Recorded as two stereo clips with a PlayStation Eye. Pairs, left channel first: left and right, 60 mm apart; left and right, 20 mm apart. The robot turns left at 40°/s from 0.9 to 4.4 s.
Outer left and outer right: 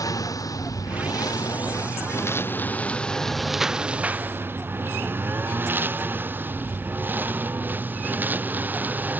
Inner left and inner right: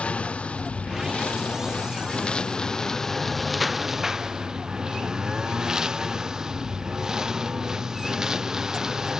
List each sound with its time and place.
0.0 s a lawn mower: 80° left; by 9.2 s 30° right (ahead or behind)